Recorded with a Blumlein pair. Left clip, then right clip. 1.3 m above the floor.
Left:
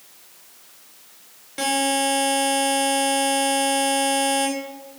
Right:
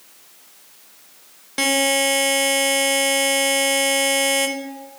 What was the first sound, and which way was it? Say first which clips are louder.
A buzzer: right 3 dB; 70° right.